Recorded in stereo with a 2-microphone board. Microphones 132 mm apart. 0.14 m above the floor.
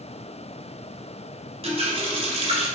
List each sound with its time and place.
1.6 s a running tap: 45° right (ahead or behind), 1.3 m